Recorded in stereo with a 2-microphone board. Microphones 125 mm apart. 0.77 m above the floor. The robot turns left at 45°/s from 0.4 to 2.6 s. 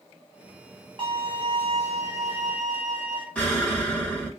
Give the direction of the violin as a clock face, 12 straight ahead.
3 o'clock.